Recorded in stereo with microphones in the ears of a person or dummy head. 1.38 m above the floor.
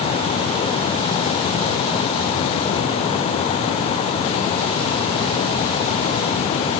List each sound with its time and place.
Only background noise.